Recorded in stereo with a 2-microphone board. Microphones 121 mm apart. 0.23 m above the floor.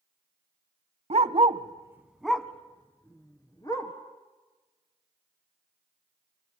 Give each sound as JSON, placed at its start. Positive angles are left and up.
{"t": 1.1, "sound": "a dog barking", "side_deg": -60, "distance_m": 0.8}